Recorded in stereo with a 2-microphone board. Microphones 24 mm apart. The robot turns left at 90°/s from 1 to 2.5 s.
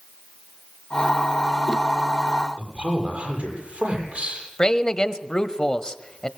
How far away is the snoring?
I don't hear snoring.